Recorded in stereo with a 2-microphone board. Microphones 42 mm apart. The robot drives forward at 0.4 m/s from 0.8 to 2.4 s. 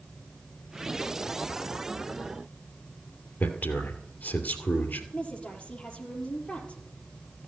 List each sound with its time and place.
3.4 s a man speaking: 50° left (ahead or behind), 2.5 m
5.1 s a woman speaking: 30° left (ahead or behind), 4 m